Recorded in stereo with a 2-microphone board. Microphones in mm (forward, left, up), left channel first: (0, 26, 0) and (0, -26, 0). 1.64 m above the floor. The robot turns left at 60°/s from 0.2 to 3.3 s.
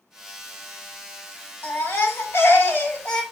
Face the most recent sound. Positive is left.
turn(degrees=15)